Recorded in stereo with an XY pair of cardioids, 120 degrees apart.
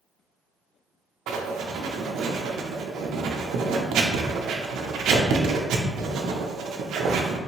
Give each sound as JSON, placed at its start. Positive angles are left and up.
{"t": 1.3, "sound": "writing", "azimuth_deg": -65, "distance_m": 0.5}